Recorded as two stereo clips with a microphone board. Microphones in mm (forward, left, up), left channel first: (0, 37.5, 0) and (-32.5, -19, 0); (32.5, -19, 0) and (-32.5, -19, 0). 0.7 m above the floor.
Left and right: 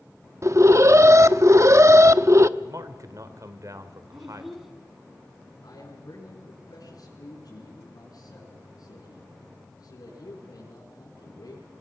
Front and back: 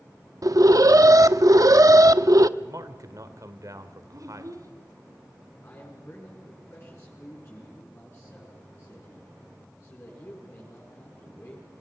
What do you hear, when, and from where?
0.4 s an alarm: 160° right, 0.7 m
2.6 s a man speaking: 150° right, 2 m
4.1 s a child speaking: 155° left, 3.5 m
5.6 s a man speaking: 50° left, 7 m